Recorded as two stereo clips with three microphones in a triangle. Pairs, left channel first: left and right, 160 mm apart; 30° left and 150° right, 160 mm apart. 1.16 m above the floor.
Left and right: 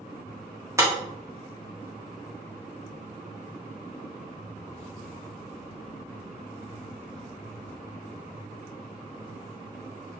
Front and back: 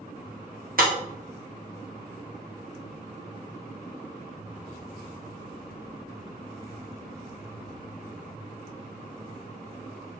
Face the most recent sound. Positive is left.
turn(degrees=-160)